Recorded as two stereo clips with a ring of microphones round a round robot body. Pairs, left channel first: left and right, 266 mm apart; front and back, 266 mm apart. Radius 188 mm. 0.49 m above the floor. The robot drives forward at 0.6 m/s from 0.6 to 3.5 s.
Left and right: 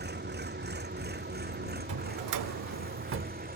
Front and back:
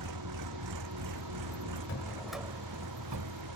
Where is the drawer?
60° right; by 3.4 s 145° right.